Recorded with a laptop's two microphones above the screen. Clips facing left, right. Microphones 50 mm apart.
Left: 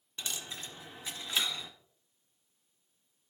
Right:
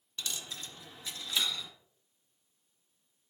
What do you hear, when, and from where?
0.2 s a dropped coin: 20° left (ahead or behind), 1.3 m